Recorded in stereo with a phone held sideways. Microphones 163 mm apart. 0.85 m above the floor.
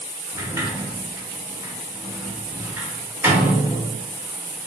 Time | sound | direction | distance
0.3 | a sliding door | 15° right (ahead or behind) | 0.6 m